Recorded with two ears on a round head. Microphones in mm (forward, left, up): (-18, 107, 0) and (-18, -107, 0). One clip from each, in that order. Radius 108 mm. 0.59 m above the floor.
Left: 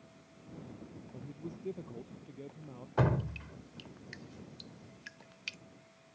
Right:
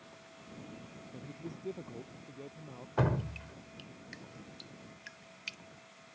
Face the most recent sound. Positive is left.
turn(degrees=0)  # may be behind; listen again after turning